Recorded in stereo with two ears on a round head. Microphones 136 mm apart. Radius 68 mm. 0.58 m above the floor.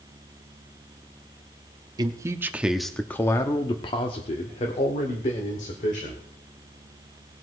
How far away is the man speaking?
About 0.8 m.